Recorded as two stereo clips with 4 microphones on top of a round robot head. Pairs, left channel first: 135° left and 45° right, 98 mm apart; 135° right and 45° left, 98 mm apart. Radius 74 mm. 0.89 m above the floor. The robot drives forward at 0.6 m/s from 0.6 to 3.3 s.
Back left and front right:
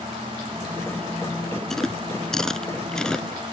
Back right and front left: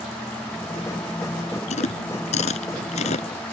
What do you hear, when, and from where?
1.7 s chewing: 135° right; by 3.5 s 140° right